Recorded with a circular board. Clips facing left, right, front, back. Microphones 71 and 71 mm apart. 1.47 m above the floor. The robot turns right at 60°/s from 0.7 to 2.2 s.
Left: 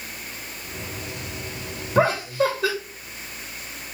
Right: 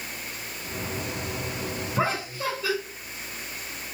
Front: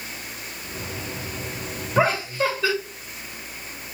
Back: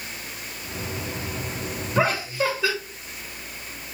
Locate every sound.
1.9 s laughter: 85° left, 2.5 m; by 2.8 s 100° left, 2.5 m